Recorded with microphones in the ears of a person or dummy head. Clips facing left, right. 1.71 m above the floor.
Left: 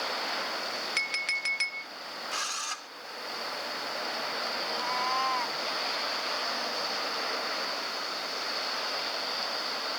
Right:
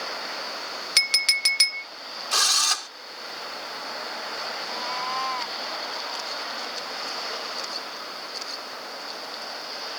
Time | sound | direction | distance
1.0 | a clink | 55° right (ahead or behind) | ?
2.3 | a drill | 80° right | ?
4.7 | a cat meowing | centre (ahead or behind) | ?